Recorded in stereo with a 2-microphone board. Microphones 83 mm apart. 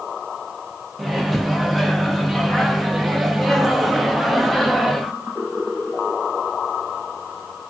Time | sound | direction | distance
1.0 | a microwave | centre (ahead or behind) | 0.6 m